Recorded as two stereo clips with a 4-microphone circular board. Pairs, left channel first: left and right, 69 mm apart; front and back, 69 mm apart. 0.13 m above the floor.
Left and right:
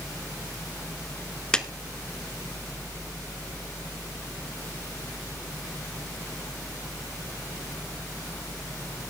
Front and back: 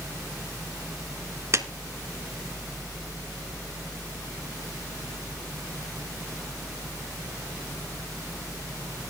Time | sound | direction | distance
1.5 | a clap | 165° left | 1.1 m